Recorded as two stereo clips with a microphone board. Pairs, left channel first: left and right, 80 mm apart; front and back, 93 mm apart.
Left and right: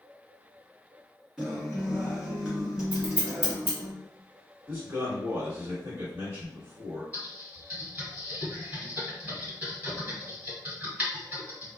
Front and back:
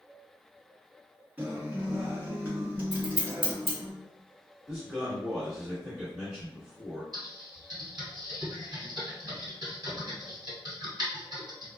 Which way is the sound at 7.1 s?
150° right.